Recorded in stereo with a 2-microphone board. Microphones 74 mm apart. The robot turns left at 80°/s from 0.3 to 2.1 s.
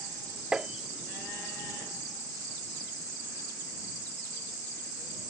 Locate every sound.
0.5 s tapping: 10° right (ahead or behind); by 0.7 s 5° right (ahead or behind)